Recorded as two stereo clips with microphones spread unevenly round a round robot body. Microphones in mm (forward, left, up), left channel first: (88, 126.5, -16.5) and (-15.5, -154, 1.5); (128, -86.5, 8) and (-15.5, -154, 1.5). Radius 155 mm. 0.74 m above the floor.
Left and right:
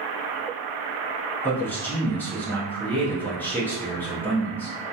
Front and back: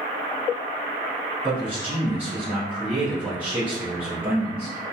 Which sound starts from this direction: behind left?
A man speaking, at 1.4 s.